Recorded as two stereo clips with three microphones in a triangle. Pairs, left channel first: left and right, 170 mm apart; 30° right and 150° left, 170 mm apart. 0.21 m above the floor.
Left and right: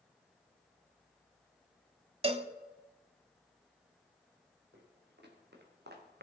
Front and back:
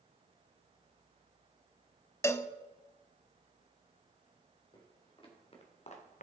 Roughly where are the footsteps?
Right.